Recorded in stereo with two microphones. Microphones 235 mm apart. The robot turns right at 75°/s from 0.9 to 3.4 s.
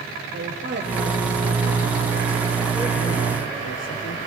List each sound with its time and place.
0.3 s a man speaking: 130° right, 5 m; by 4.2 s 55° left, 5 m